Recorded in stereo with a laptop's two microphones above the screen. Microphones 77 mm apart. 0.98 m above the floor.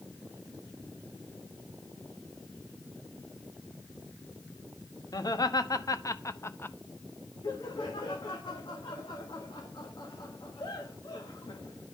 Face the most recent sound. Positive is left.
turn(degrees=70)  # may be behind; listen again after turning